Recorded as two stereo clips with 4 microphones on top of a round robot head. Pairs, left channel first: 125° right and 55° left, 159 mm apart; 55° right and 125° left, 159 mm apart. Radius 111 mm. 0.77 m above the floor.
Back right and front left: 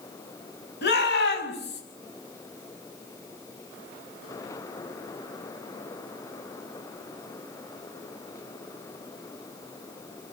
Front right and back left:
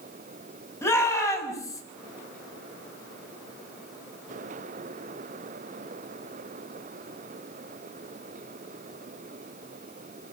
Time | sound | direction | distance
0.8 | a shout | 130° right | 7 m